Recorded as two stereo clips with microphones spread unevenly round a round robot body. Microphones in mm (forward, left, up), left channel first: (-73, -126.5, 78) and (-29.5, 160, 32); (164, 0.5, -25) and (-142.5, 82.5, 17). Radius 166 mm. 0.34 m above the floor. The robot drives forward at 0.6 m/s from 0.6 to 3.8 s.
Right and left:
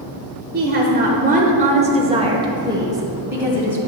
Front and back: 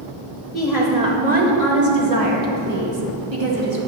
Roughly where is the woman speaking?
Ahead left.